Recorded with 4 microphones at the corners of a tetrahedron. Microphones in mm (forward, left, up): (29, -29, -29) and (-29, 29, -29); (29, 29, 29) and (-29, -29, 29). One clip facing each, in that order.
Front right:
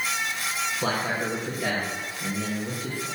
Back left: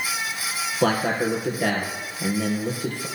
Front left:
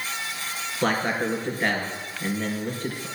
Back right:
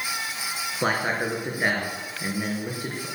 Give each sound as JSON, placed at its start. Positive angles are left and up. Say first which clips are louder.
{"t": 0.8, "sound": "a man speaking", "louder": "back left 7 dB, front left 1 dB", "azimuth_deg": 150, "distance_m": 3.5}